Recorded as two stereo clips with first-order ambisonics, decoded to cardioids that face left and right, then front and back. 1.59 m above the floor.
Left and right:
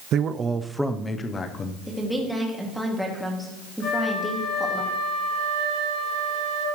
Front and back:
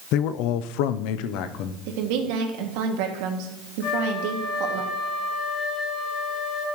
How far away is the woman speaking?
About 2.5 m.